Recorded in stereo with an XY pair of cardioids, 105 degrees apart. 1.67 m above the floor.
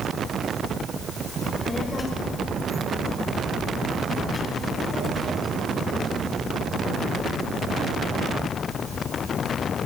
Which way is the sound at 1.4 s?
30° left.